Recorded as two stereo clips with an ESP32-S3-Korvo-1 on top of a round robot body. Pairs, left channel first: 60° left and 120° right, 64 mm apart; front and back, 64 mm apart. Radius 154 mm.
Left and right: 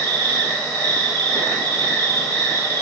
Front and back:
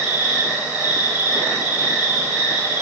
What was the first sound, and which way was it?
An insect, 120° right.